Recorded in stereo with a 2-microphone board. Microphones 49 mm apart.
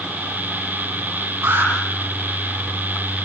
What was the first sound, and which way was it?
An alarm, 60° right (ahead or behind).